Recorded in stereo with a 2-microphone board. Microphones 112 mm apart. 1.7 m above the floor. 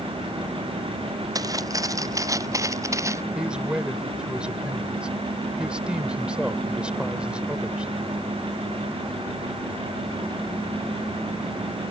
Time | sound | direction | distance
1.4 | footsteps | 35° right (ahead or behind) | ?
3.4 | a man speaking | 10° right (ahead or behind) | ?